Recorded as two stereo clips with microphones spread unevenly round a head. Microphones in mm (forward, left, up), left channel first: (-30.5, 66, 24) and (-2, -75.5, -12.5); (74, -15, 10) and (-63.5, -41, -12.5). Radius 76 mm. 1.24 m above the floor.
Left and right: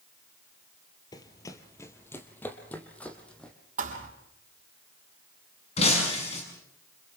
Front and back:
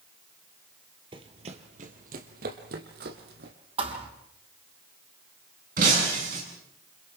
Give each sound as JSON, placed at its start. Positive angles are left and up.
{"t": 1.1, "sound": "running footsteps", "azimuth_deg": 135, "distance_m": 1.7}
{"t": 3.8, "sound": "a thud", "azimuth_deg": -120, "distance_m": 4.0}
{"t": 5.8, "sound": "breaking glass", "azimuth_deg": 145, "distance_m": 7.0}